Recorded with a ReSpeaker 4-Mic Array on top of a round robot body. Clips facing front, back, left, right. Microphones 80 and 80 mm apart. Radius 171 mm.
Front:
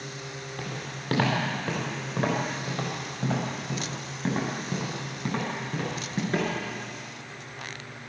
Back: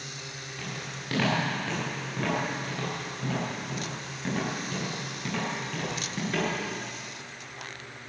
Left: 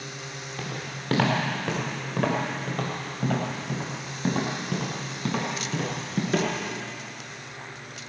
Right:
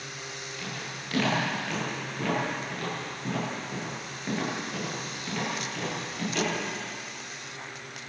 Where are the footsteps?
50° left, 4.5 m; by 6.5 s 65° left, 7.5 m.